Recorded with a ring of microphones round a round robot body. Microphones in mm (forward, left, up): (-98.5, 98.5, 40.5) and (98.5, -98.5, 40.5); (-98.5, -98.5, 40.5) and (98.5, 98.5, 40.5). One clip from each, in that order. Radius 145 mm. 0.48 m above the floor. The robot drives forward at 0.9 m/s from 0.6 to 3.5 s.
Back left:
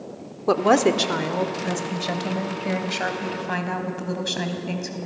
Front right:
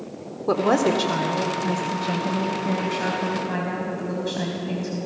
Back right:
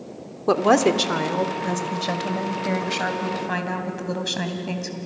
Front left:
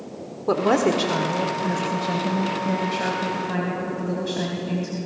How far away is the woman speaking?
About 1.4 m.